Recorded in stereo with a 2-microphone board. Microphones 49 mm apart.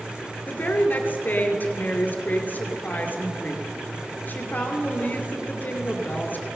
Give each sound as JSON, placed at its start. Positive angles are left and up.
{"t": 0.5, "sound": "a woman speaking", "side_deg": 40, "distance_m": 1.6}